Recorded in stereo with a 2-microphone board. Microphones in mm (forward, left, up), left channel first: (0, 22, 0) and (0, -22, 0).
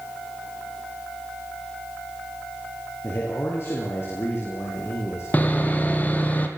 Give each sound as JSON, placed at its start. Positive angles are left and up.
{"t": 3.0, "sound": "a man speaking", "side_deg": 60, "distance_m": 6.5}
{"t": 5.3, "sound": "sawing", "side_deg": 35, "distance_m": 3.0}